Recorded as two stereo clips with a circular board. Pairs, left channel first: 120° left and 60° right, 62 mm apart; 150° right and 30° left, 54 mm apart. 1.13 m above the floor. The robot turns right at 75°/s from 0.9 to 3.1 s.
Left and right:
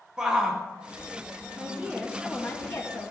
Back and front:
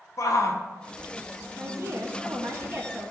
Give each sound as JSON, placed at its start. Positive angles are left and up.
{"t": 0.2, "sound": "a shout", "azimuth_deg": -140, "distance_m": 1.1}
{"t": 1.6, "sound": "a woman speaking", "azimuth_deg": -10, "distance_m": 1.6}